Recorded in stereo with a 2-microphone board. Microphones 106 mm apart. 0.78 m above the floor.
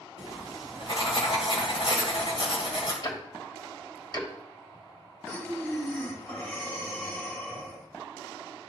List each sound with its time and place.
0.2 s writing: 60° left (ahead or behind), 2 m
3.0 s ticking: 50° left (ahead or behind), 1.5 m
5.3 s breathing: 20° left (ahead or behind), 1.9 m